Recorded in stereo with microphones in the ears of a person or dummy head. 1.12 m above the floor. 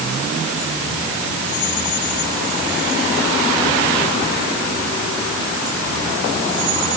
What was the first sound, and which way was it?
Only background noise.